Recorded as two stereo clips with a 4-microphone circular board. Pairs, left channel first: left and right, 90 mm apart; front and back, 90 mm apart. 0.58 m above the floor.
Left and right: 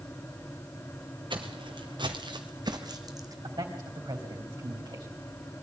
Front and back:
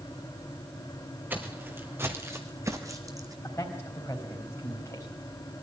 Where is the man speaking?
60° right, 3.5 m.